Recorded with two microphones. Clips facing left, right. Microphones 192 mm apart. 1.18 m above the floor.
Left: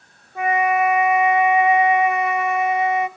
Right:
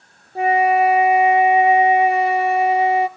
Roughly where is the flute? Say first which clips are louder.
Right 4 dB; right.